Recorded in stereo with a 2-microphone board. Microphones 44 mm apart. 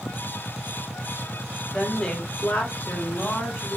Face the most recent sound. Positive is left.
turn(degrees=65)  # may be behind; listen again after turning